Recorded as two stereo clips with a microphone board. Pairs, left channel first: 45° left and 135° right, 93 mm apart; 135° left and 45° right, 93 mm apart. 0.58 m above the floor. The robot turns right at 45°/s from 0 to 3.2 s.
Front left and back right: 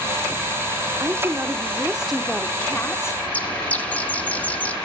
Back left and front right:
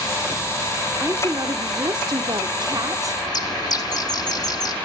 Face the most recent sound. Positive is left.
turn(degrees=115)